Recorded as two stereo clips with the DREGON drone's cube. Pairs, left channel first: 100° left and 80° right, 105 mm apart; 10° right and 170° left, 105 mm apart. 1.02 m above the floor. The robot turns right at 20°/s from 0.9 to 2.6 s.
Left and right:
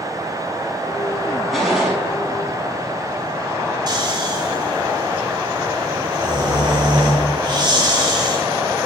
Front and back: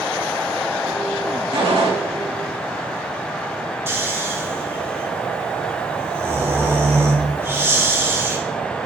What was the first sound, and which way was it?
A gunshot, 170° right.